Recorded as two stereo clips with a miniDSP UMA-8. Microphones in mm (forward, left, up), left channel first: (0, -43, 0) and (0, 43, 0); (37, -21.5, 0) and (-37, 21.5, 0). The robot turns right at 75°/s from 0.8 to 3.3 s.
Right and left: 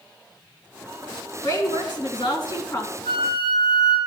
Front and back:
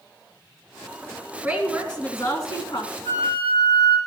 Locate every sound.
1.4 s a woman speaking: 145° right, 3 m; by 2.9 s 35° right, 3 m
3.0 s a flute: 80° right, 7.5 m; by 4.0 s 60° right, 7.5 m